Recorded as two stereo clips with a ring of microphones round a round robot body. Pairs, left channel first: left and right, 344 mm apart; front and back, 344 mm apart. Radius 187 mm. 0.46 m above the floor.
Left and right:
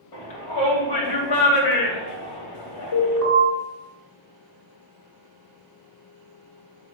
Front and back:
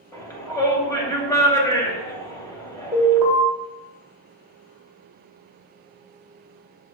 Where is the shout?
80° left, 3 m.